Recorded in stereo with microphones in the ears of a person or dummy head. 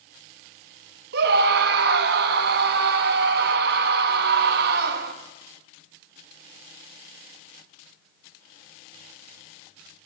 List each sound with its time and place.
1.1 s a scream: 60° right (ahead or behind), 1.9 m